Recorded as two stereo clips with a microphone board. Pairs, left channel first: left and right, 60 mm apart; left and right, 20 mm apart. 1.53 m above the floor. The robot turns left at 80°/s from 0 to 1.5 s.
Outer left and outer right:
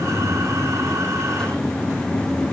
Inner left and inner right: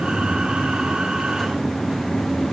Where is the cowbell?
I don't hear a cowbell.